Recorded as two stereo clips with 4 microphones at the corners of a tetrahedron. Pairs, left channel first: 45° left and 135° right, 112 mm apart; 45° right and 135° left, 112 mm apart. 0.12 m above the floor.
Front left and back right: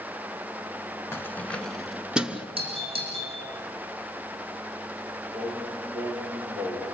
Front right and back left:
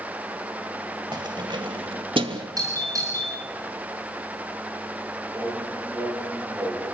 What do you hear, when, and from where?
1.1 s keys jangling: 105° left, 1.2 m; by 2.5 s 150° left, 1.4 m
2.6 s a doorbell: 165° right, 9.5 m
5.3 s singing: 160° right, 9 m